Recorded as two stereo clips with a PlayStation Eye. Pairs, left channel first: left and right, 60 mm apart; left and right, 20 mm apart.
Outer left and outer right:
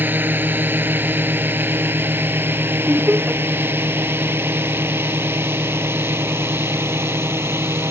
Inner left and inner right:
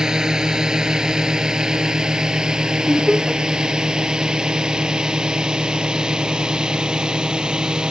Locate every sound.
0.0 s a drone: 35° right (ahead or behind); by 7.9 s 50° right (ahead or behind)
2.9 s laughter: 30° right (ahead or behind)